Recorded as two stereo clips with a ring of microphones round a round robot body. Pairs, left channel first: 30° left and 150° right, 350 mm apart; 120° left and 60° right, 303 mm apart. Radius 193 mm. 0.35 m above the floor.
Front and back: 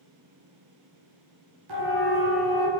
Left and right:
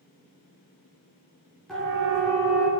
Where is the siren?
150° right, 8.5 m; by 2.7 s 145° right, 8 m.